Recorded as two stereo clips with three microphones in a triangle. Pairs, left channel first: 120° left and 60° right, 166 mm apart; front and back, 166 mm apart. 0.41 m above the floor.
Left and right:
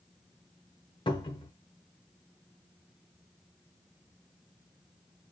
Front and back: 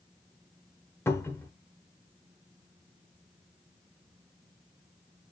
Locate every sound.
1.1 s a cupboard door: 70° left, 0.7 m